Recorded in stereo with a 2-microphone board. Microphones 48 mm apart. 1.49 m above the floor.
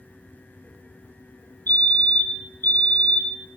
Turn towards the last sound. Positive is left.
turn(degrees=45)  # may be behind; listen again after turning